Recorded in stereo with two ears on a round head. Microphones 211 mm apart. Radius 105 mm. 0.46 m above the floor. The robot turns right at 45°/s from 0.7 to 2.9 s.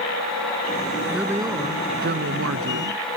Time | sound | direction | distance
1.1 | a man speaking | 175° right | ?